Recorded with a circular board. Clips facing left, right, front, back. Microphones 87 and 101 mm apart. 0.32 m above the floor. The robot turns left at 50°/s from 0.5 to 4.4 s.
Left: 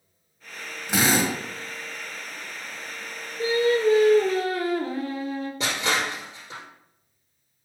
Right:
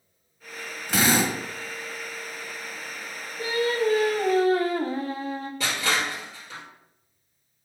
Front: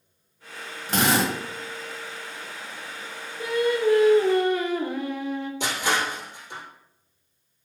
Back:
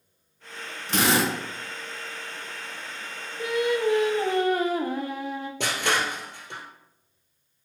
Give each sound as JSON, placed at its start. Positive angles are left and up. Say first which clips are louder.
{"t": 0.9, "sound": "a drill", "louder": "even, front 1 dB", "azimuth_deg": 25, "distance_m": 1.5}
{"t": 3.4, "sound": "singing", "louder": "left 4 dB, front 1 dB", "azimuth_deg": -85, "distance_m": 0.7}
{"t": 5.6, "sound": "crushing", "louder": "even, back 1 dB", "azimuth_deg": 160, "distance_m": 1.7}